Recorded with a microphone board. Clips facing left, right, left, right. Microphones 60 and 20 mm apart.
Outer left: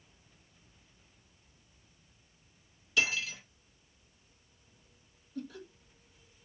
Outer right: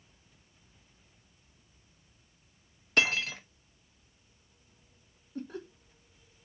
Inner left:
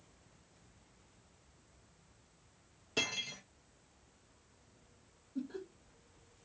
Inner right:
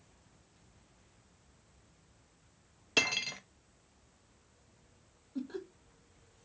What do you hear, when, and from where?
3.0 s cutlery clinking: 55° right (ahead or behind), 0.6 m
5.3 s laughter: 40° right (ahead or behind), 0.9 m